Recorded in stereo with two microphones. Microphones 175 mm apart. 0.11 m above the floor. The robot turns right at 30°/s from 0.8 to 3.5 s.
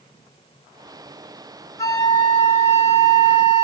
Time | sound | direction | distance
1.8 | a flute | 25° left | 0.8 m